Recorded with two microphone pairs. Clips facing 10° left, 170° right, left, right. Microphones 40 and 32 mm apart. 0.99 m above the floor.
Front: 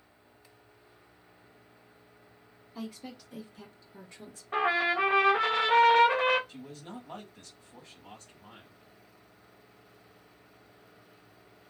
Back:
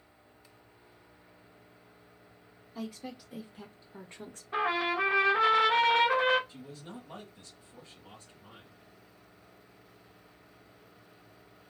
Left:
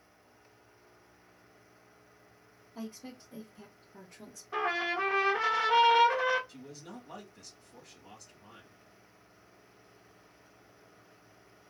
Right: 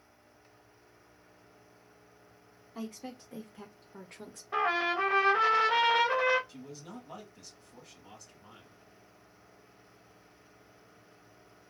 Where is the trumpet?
25° right, 1.3 m.